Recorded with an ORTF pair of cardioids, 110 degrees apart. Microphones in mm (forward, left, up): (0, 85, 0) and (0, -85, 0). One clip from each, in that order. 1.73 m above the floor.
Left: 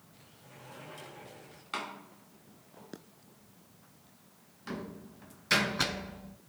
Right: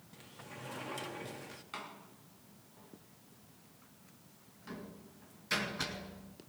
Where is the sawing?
I don't hear sawing.